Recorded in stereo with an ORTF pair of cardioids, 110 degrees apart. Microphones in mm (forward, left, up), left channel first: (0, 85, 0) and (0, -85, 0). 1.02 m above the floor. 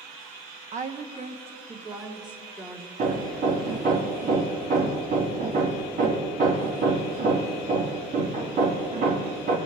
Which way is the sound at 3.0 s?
55° right.